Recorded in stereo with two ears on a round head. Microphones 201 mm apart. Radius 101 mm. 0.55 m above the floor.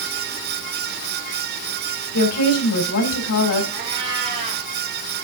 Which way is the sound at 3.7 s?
25° right (ahead or behind).